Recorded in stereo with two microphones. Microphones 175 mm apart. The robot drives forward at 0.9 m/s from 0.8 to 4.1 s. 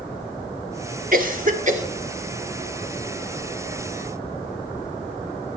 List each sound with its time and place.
1.1 s a cough: 55° right (ahead or behind), 2 m; by 1.8 s 45° right (ahead or behind), 2.5 m